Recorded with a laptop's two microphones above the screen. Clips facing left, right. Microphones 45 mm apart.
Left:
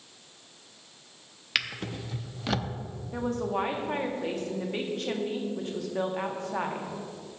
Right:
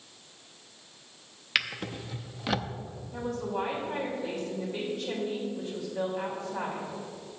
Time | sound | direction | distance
1.6 | a drawer | 5° right (ahead or behind) | 0.5 m
3.1 | a woman speaking | 60° left (ahead or behind) | 1.4 m